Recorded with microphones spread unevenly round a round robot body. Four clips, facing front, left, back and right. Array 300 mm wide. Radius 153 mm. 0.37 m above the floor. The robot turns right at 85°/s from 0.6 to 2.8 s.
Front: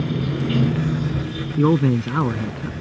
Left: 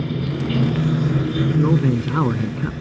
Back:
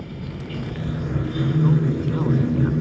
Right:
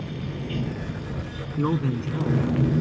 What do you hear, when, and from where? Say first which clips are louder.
0.0 s running water: left 9 dB, front 10 dB; 40° left; by 2.8 s 135° right
1.6 s a man speaking: left 4 dB, front 6 dB; straight ahead; by 2.7 s 95° left